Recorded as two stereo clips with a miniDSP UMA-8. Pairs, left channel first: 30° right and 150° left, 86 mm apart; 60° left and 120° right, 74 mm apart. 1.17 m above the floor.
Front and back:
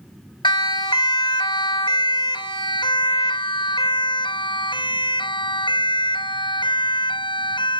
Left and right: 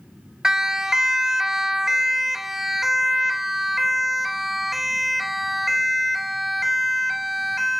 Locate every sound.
0.4 s a siren: 40° right; by 7.8 s 30° right